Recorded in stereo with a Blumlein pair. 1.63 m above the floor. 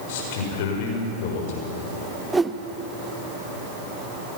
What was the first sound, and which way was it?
A man speaking, 50° left.